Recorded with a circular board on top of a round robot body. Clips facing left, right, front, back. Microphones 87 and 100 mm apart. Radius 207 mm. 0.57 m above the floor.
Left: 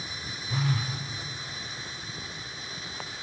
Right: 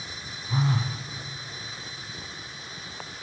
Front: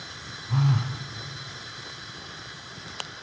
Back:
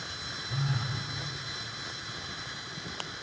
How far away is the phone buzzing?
About 1.8 m.